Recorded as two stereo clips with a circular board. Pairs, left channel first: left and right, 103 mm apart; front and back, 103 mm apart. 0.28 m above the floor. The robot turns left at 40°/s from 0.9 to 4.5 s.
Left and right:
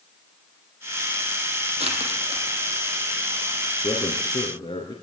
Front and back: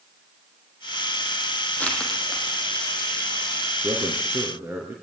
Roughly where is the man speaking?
Behind left.